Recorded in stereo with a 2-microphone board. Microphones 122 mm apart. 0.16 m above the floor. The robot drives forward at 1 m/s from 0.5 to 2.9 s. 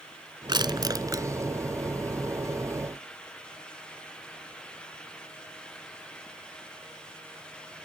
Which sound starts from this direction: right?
Crushing, at 0.5 s.